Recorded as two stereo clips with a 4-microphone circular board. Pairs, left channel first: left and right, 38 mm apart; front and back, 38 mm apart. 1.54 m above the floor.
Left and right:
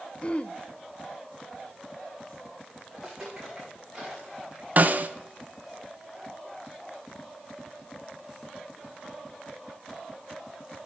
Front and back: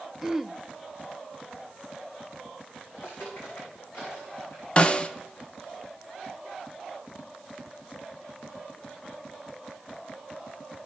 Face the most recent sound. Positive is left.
turn(degrees=-55)